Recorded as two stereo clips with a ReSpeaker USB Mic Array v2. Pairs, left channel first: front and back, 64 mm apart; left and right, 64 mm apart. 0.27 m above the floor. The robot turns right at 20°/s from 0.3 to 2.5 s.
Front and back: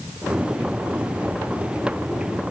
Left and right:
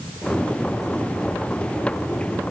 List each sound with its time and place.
Only background noise.